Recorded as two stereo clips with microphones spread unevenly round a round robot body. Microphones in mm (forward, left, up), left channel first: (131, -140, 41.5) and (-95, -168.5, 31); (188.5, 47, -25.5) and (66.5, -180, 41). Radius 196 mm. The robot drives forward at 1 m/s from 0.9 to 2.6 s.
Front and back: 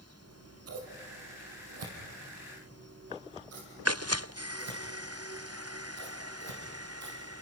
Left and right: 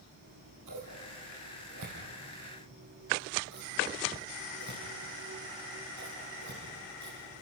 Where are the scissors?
165° right, 3.5 m; by 7.4 s 170° right, 5 m.